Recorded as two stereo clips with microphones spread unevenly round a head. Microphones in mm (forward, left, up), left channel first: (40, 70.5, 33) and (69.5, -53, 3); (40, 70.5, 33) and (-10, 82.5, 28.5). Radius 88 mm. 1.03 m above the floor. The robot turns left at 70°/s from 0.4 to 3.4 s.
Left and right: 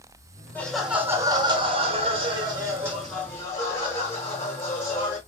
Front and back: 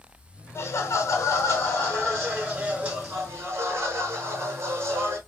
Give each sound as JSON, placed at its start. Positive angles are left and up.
{"t": 0.6, "sound": "laughter", "azimuth_deg": 20, "distance_m": 1.2}